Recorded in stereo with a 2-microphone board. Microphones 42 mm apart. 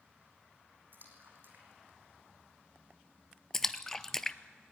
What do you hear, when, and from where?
0.9 s a splash: 50° right (ahead or behind), 3.5 m
3.5 s a splash: 10° left (ahead or behind), 0.6 m